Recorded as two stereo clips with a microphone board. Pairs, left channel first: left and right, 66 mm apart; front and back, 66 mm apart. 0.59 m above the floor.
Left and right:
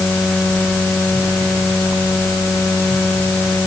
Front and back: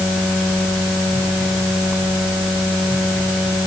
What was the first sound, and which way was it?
Only background noise.